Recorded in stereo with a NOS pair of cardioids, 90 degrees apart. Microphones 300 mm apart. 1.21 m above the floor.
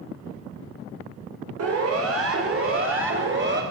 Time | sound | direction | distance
1.6 | a siren | 55° right | 5.5 m